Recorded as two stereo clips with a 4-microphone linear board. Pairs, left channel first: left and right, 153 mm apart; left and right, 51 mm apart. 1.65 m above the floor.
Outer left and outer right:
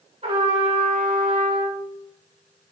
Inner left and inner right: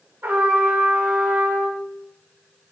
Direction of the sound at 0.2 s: 45° right (ahead or behind).